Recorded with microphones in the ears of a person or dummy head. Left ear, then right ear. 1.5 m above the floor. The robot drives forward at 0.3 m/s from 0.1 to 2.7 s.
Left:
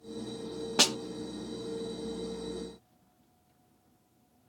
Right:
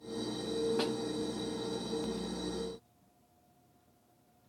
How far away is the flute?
I don't hear a flute.